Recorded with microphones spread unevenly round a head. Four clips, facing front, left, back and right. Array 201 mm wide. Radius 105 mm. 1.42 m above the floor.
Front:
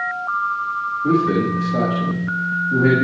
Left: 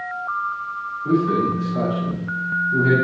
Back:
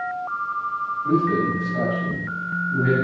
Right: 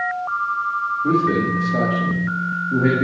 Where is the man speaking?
45° right, 7.5 m.